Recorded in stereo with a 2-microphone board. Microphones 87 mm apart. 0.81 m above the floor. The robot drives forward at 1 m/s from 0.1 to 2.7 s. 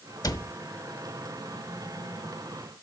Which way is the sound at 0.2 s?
50° left (ahead or behind).